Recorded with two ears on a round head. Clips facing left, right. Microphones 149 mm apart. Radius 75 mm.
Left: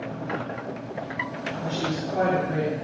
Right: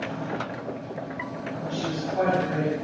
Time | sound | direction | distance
1.6 | a woman speaking | 50° left (ahead or behind) | 3.5 m